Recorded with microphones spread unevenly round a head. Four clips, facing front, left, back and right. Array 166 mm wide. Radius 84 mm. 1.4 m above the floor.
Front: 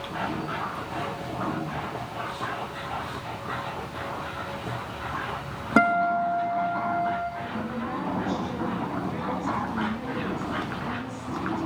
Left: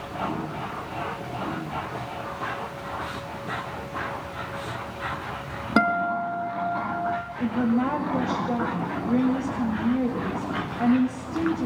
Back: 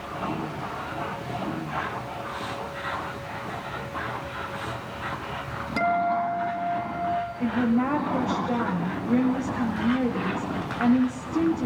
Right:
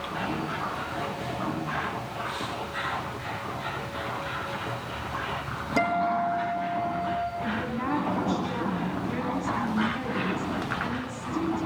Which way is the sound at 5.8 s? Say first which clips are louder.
Left 2 dB, front 2 dB; 45° left.